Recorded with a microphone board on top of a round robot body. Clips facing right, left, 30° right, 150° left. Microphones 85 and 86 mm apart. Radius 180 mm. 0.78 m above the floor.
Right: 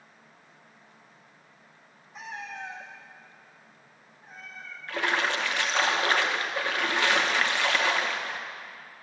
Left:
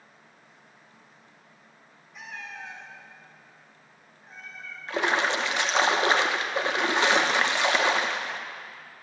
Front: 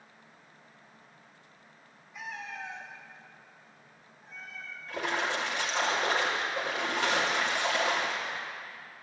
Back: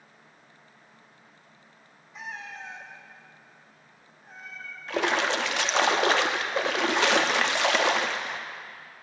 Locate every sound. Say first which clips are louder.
2.1 s a cat meowing: right 2 dB, back 1 dB; 145° right, 1.6 m; by 4.8 s 175° right, 3 m
4.9 s a splash: left 2 dB, back 6 dB; 160° left, 0.6 m